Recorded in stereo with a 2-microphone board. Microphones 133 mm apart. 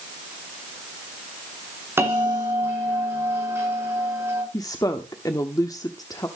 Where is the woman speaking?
25° left (ahead or behind), 0.9 m.